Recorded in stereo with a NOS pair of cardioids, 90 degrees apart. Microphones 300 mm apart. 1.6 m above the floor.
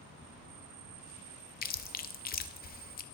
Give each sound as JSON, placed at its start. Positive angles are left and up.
{"t": 1.6, "sound": "chewing", "azimuth_deg": 30, "distance_m": 0.6}